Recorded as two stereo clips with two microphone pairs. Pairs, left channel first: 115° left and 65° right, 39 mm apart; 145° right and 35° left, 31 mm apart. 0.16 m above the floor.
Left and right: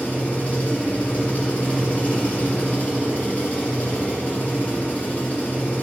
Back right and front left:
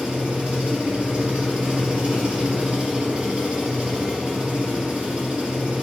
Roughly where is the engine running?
Left.